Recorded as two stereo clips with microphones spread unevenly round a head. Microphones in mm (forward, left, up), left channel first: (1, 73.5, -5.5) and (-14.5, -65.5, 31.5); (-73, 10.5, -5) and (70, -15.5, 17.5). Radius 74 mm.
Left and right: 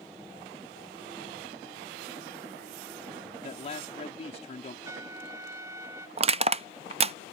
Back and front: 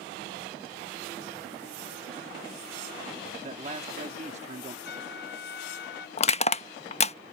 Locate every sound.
3.4 s a man speaking: 40° left
4.8 s a trumpet: 165° right
6.2 s crushing: 140° right